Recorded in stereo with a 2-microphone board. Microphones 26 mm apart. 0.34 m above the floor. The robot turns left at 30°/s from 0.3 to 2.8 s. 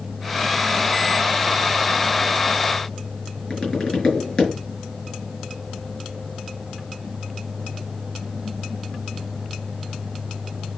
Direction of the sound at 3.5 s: 30° left (ahead or behind).